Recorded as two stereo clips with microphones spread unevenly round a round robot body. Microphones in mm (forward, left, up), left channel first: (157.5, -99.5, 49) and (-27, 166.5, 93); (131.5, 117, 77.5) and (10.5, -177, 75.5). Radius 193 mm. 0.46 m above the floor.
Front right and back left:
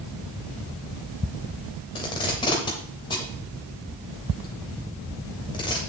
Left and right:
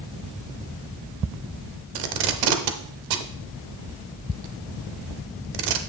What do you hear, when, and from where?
1.9 s tape being pulled: 130° right, 0.7 m